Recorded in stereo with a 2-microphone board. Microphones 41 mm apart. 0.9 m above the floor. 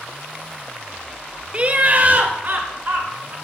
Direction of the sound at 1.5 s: 30° right (ahead or behind).